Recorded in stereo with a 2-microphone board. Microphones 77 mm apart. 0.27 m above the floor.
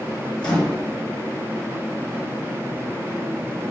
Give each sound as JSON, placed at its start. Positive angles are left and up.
{"t": 0.4, "sound": "a microwave", "side_deg": 10, "distance_m": 3.5}